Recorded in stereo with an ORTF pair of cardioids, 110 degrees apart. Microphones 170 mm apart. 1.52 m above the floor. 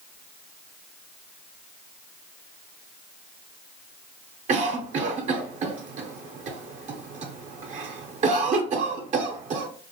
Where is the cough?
45° right, 0.6 m.